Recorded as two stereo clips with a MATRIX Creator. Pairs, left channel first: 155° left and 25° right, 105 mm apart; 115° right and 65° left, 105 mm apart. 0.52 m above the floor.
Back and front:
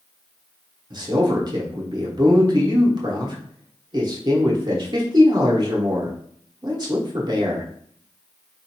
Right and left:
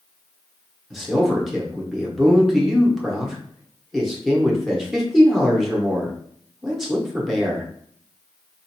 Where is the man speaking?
20° right, 0.9 m.